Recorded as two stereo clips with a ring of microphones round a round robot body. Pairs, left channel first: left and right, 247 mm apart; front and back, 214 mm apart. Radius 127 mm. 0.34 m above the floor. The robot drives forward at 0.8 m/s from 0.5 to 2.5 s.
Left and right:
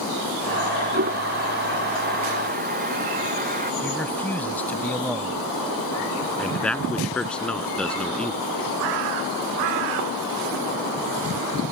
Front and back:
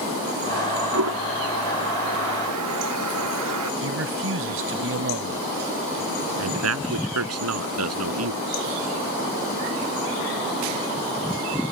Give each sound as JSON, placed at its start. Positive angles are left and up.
{"t": 0.9, "sound": "a toilet flushing", "azimuth_deg": -145}
{"t": 3.8, "sound": "a man speaking", "azimuth_deg": 175}
{"t": 6.4, "sound": "a man speaking", "azimuth_deg": 175}